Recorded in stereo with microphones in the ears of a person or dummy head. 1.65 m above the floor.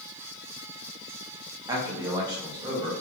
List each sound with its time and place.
1.7 s a man speaking: 15° right (ahead or behind), 0.7 m